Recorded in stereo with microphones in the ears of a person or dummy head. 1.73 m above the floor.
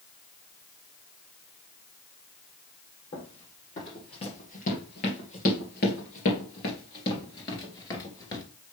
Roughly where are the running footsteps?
Left.